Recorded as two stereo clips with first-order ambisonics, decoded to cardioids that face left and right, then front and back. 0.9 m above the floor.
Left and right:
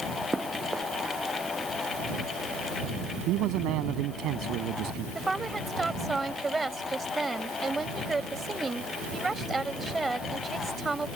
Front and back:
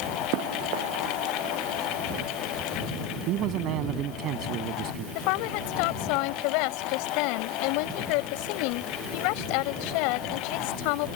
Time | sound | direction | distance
0.3 | running footsteps | 175° right | ?
3.3 | a man speaking | 135° right | ?
5.2 | a woman speaking | 10° right | ?